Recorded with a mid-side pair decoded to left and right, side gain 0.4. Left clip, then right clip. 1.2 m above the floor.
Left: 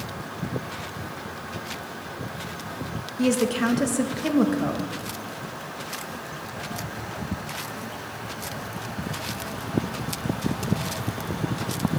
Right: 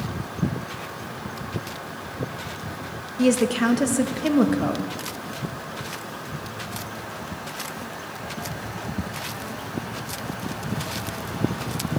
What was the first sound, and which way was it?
A woman speaking, 15° right.